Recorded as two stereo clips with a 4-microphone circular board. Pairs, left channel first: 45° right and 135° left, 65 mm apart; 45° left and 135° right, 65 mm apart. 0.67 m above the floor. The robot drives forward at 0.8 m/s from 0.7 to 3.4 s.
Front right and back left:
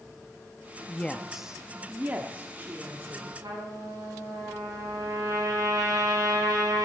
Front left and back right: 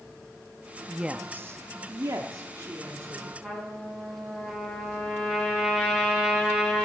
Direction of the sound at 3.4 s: 145° left.